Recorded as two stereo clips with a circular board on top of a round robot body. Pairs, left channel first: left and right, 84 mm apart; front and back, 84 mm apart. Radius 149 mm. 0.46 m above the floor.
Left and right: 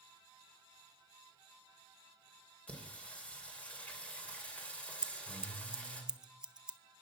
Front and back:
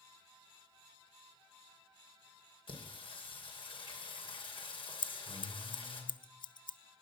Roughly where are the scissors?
Ahead.